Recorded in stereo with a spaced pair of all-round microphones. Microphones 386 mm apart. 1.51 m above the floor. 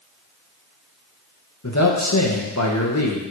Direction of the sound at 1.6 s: 45° left (ahead or behind).